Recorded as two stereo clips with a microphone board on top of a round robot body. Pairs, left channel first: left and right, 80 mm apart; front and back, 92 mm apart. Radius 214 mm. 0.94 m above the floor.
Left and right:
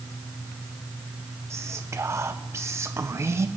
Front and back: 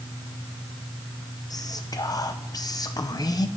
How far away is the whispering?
About 0.6 m.